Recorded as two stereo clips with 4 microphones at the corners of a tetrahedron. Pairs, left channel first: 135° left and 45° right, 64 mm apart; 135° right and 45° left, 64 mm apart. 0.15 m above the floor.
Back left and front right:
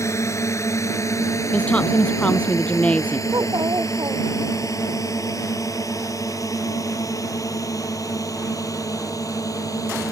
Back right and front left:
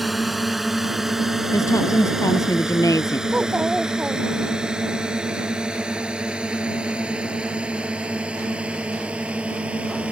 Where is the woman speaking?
155° right.